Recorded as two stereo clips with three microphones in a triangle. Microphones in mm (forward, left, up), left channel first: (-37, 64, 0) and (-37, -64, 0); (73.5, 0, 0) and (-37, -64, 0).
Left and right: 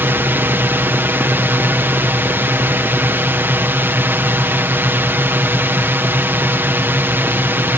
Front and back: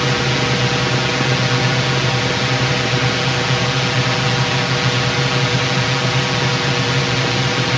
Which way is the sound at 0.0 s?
60° right.